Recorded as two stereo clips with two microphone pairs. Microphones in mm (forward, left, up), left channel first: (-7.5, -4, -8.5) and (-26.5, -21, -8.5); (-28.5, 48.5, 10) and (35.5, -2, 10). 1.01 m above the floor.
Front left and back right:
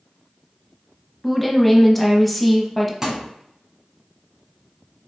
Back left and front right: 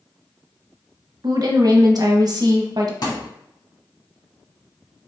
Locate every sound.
1.2 s a woman speaking: 45° right, 0.9 m
3.0 s a thud: 140° left, 1.4 m